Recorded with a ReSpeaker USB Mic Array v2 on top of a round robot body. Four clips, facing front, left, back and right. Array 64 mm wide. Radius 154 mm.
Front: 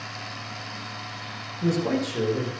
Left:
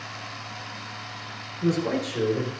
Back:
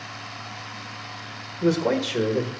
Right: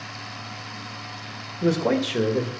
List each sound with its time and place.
1.6 s a man speaking: 115° right, 1.6 m